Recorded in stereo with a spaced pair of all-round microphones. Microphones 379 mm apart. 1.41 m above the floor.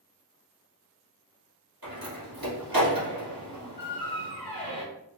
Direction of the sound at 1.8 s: 65° right (ahead or behind).